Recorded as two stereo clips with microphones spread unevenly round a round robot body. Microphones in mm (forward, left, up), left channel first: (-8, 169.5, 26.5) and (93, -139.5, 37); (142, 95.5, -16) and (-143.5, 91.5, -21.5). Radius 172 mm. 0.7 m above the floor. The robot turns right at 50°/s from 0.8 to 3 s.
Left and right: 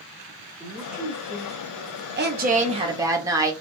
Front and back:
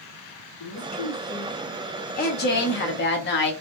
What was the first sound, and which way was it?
A man speaking, 10° left.